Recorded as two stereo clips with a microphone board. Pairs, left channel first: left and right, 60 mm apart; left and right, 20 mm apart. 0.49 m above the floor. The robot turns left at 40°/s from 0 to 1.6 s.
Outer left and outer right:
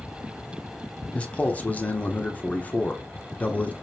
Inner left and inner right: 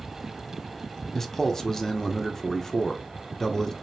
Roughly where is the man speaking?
Left.